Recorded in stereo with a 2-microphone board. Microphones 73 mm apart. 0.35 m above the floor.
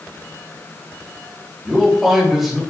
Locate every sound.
1.6 s a man speaking: centre (ahead or behind), 1.0 m